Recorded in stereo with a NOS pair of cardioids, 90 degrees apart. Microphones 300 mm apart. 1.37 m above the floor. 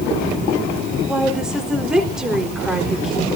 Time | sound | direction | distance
1.1 | a woman speaking | straight ahead | 4 m